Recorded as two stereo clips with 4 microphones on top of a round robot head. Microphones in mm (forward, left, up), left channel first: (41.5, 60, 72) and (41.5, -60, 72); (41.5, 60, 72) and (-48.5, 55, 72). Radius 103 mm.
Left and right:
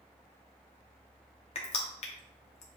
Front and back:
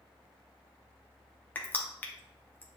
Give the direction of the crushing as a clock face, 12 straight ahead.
10 o'clock.